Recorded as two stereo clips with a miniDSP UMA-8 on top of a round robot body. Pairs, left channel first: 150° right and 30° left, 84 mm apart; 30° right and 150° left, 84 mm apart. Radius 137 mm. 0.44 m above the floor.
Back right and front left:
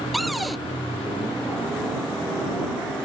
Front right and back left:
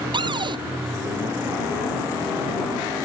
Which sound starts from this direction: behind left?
A cupboard door, at 0.1 s.